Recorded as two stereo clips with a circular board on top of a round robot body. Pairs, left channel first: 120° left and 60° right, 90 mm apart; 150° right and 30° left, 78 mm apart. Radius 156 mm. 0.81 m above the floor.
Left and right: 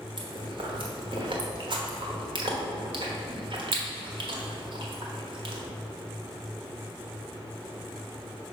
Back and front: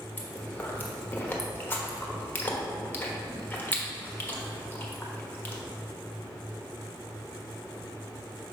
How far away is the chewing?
About 1.3 m.